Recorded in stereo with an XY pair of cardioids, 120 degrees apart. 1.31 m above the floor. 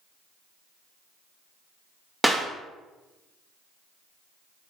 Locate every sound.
2.2 s a clap: 5° right, 0.9 m